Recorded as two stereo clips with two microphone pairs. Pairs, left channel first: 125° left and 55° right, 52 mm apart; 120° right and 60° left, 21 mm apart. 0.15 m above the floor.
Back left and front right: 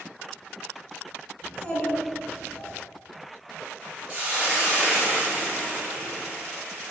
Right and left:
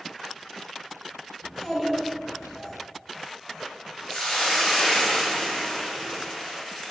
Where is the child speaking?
150° left, 1.1 m; by 2.7 s 70° left, 1.1 m.